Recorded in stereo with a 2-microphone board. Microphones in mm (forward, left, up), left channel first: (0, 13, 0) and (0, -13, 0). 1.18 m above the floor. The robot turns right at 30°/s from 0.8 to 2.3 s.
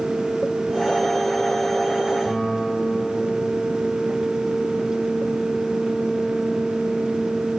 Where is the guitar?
20° left (ahead or behind), 6.5 m.